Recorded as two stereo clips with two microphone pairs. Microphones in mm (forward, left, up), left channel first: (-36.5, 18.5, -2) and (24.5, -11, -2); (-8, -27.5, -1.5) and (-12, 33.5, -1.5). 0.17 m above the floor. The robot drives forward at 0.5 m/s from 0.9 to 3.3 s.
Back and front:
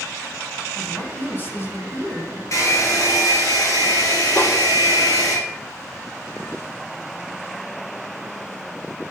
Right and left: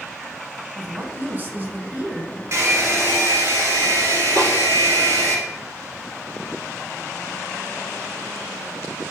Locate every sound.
0.8 s a woman speaking: 115° left, 1.7 m; by 2.4 s 145° left, 2 m
2.5 s a hair dryer: 125° left, 3 m; by 5.4 s 135° left, 3 m
4.4 s a snare drum: 110° left, 4 m